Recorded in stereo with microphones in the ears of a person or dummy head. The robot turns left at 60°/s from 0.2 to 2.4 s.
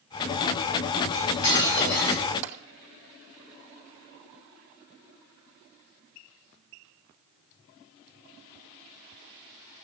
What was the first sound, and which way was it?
Cutlery clinking, 145° left.